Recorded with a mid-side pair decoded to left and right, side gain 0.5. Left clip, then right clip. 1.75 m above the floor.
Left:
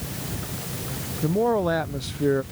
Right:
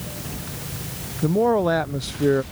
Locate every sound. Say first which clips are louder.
1.2 s a man speaking: right 3 dB; 20° right